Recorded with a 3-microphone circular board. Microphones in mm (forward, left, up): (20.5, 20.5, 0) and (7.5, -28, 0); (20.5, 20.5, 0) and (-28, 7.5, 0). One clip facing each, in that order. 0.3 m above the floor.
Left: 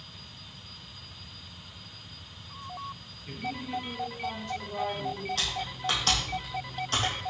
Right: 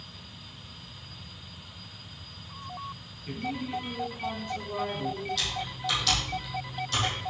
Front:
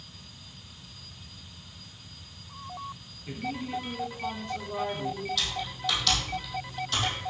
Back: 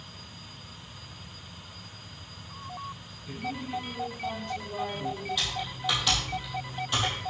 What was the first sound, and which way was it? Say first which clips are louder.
A woman speaking: right 2 dB, front 1 dB; 40° right.